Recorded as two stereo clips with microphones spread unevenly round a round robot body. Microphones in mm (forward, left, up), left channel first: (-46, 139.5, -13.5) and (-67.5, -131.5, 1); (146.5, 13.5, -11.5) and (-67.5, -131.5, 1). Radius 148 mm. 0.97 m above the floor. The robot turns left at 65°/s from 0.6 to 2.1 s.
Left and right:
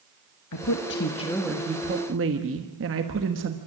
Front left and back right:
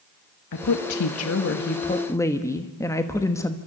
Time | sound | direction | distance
0.5 | a woman speaking | 55° left | 1.3 m